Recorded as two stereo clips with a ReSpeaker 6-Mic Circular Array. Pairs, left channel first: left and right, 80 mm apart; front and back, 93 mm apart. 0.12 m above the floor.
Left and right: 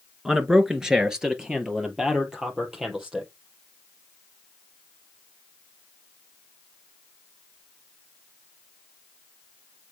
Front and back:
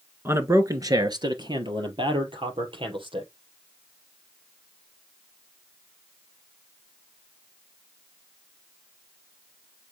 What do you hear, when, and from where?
0.2 s a man speaking: 165° right, 1.3 m; by 3.3 s 170° right, 3.5 m